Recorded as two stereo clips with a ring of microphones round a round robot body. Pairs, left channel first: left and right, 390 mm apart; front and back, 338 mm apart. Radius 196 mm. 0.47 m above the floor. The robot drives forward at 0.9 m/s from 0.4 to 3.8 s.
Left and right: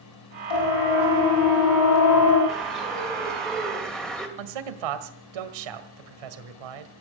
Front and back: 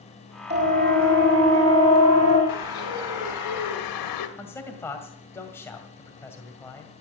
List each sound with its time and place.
0.5 s a siren: 110° left, 5 m; by 2.4 s 145° left, 5.5 m
2.5 s a bird: straight ahead, 3 m
4.4 s a man speaking: 85° right, 1.9 m